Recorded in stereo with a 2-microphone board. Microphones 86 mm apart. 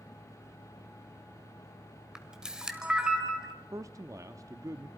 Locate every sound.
2.1 s a camera shutter: 10° right (ahead or behind), 1.8 m
3.7 s a man speaking: 40° right (ahead or behind), 0.7 m